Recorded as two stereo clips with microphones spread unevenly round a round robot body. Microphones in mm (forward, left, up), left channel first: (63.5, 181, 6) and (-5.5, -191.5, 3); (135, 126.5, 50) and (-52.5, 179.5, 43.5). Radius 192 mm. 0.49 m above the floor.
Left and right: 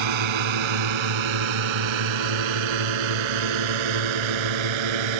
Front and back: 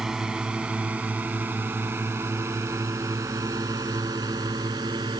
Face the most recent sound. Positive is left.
turn(degrees=-120)